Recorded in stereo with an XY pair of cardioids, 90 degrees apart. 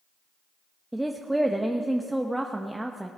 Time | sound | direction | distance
0.9 | a woman speaking | 10° right | 0.8 m